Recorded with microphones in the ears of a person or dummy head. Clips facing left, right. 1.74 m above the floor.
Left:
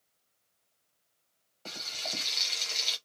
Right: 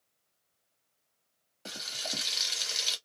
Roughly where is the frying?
Centre.